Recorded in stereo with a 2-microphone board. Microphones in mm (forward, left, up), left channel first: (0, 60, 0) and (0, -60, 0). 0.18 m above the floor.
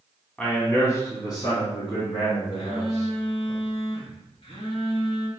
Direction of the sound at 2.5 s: 55° left (ahead or behind).